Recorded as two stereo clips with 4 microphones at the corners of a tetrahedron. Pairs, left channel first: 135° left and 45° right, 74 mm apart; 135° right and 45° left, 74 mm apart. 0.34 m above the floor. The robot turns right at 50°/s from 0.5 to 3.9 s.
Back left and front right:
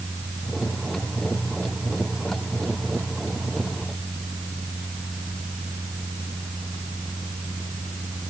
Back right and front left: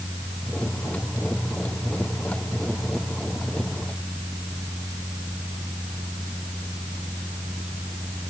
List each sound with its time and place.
Only background noise.